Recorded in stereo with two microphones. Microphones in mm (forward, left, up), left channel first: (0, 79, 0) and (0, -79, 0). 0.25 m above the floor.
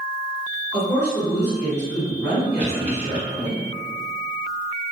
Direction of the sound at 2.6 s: 10° right (ahead or behind).